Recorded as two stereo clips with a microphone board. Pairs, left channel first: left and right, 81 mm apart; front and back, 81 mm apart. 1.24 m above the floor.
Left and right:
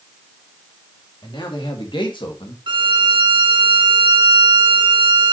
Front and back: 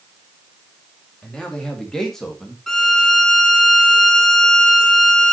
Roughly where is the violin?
Right.